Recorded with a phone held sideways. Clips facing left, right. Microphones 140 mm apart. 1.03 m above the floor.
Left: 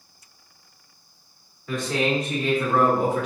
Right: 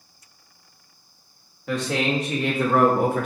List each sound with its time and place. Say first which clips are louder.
1.7 s a man speaking: even; 75° right (ahead or behind), 1.3 m; by 3.3 s 50° right (ahead or behind), 0.8 m